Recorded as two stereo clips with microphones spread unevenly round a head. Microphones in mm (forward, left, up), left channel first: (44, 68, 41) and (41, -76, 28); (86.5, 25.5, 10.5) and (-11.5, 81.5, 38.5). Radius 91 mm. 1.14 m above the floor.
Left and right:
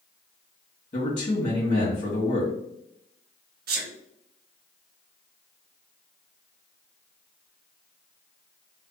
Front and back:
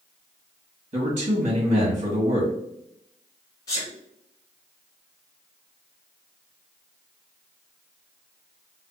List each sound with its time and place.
0.9 s a man speaking: 135° left, 1.4 m
3.7 s a sneeze: 90° right, 0.5 m